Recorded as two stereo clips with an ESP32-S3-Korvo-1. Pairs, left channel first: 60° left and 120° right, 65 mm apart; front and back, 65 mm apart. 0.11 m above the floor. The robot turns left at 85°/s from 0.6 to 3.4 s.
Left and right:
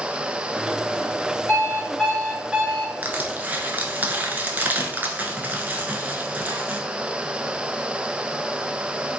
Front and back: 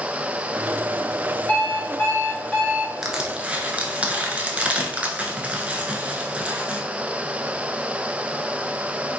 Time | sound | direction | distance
1.5 | an alarm clock | 40° left | 1.1 m
3.0 | crushing | 100° right | 0.5 m